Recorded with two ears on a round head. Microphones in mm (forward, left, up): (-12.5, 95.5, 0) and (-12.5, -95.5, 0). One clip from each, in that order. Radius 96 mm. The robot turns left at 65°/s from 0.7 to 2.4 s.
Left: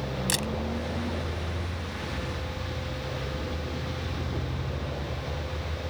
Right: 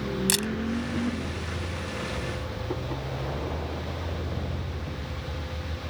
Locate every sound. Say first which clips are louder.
0.3 s a camera shutter: right 2 dB; 20° right (ahead or behind)